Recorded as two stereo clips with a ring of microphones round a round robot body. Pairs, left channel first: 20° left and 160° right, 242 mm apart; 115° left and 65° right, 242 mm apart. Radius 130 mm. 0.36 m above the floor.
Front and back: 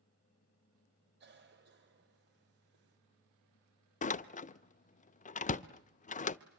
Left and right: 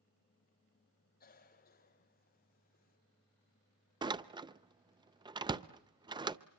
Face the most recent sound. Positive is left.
turn(degrees=-5)